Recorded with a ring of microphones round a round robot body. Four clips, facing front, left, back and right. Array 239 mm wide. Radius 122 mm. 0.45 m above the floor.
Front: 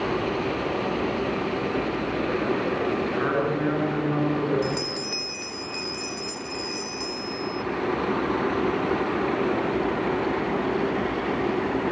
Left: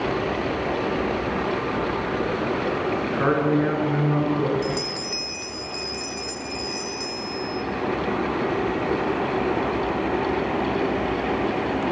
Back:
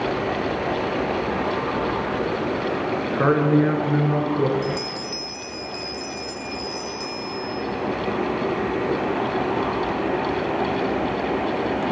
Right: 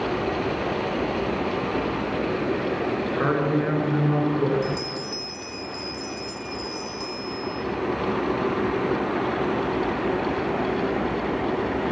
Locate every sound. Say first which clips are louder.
3.2 s a man speaking: left 3 dB, back 11 dB; 175° left, 6.5 m; by 4.5 s 175° right, 7.5 m
4.6 s a bell: left 1 dB, back 2 dB; 45° left, 0.9 m